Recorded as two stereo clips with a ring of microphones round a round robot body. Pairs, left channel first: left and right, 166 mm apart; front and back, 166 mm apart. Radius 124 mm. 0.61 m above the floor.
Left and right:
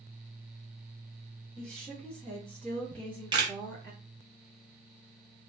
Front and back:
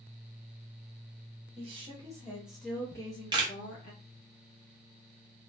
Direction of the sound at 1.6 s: 175° left.